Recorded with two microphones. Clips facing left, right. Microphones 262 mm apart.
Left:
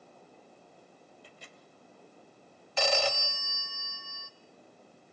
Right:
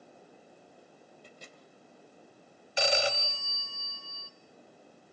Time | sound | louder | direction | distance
1.2 | a microwave | right 2 dB | 50° right (ahead or behind) | 2.5 m
2.8 | a phone ringing | even | 15° right (ahead or behind) | 1.3 m